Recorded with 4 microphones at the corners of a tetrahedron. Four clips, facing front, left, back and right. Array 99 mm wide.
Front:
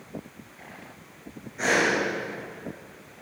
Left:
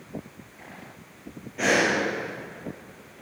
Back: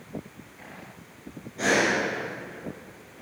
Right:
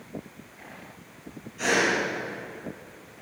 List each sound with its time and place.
1.6 s breathing: 105° left, 3 m